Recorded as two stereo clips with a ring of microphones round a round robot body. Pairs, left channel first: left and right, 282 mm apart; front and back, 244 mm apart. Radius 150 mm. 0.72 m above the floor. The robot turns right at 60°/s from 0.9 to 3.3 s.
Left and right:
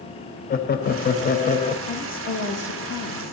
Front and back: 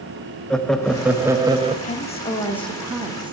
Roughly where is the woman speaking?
Ahead left.